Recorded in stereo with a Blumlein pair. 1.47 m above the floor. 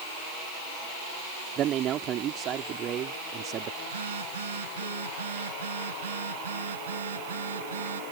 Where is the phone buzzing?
65° right.